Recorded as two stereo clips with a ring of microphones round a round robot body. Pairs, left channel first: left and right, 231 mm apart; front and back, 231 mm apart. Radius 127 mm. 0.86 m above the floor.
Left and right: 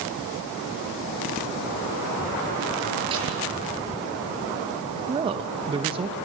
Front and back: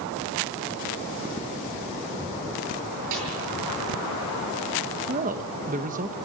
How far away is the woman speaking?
About 0.9 m.